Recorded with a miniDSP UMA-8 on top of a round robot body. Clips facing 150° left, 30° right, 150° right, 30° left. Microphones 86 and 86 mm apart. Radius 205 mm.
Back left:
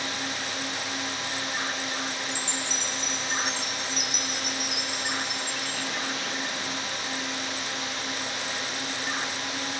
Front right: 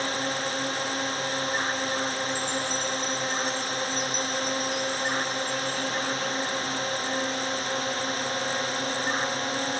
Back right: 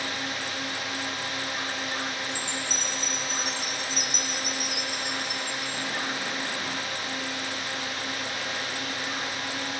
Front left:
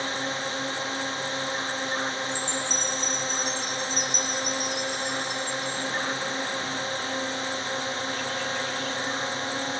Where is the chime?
130° left.